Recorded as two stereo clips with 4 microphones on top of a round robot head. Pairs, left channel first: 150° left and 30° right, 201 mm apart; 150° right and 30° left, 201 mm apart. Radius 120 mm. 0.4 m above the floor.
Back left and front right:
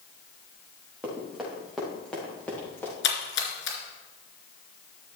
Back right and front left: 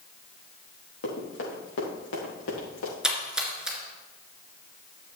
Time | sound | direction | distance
1.0 | running footsteps | 115° right | 4.5 m
3.0 | a splash | 120° left | 2.5 m